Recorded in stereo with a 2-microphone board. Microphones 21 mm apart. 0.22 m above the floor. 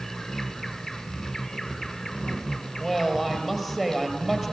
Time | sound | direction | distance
0.0 | an insect | 10° left (ahead or behind) | 1.3 m
1.1 | footsteps | 55° right (ahead or behind) | 7.5 m
2.8 | a woman speaking | 20° right (ahead or behind) | 4.5 m